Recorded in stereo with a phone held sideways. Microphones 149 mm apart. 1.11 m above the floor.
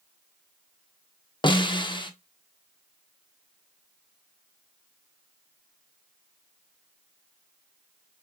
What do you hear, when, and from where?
1.4 s a snare drum: 30° left (ahead or behind), 0.7 m